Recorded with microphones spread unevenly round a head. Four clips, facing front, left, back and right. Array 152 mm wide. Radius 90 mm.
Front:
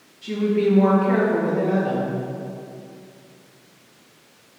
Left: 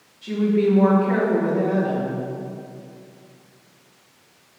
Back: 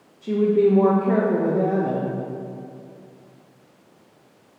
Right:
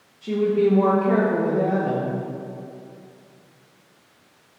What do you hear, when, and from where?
0.2 s a woman speaking: 155° right, 1.8 m